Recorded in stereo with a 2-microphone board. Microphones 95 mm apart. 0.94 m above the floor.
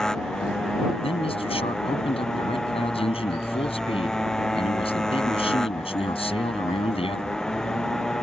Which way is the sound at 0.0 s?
5° left (ahead or behind).